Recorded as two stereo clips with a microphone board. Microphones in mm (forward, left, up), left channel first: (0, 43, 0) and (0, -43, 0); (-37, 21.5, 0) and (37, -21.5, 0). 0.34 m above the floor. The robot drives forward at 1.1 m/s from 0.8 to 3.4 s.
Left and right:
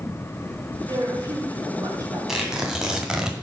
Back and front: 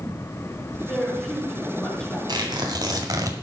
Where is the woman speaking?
125° right, 5 m; by 2.2 s 135° right, 5.5 m.